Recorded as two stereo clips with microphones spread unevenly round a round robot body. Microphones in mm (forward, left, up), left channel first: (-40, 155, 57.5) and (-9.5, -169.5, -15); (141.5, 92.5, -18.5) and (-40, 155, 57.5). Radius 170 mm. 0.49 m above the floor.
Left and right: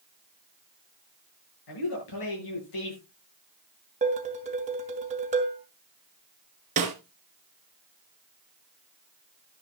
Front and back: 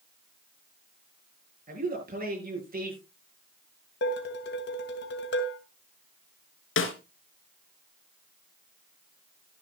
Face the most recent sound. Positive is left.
turn(degrees=-15)